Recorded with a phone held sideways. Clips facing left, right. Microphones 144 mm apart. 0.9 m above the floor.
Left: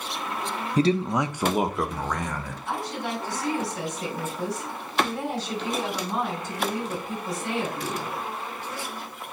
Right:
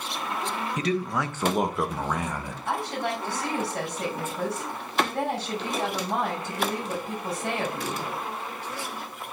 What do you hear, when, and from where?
0.8 s a man speaking: 35° left (ahead or behind), 0.6 m; by 2.5 s 15° right (ahead or behind), 1.2 m
2.6 s a woman speaking: 55° right (ahead or behind), 5.5 m